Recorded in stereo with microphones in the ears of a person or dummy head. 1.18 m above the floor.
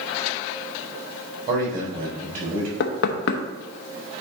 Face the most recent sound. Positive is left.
turn(degrees=65)  # may be behind; listen again after turning